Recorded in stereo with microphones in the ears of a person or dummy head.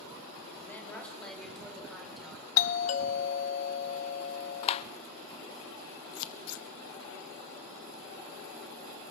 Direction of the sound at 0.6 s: 10° left (ahead or behind).